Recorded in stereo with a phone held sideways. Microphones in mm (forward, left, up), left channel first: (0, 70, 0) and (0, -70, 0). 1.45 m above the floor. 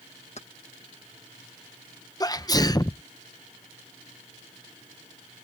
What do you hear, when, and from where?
0.4 s keys jangling: 55° left (ahead or behind)
2.2 s a sneeze: 30° left (ahead or behind)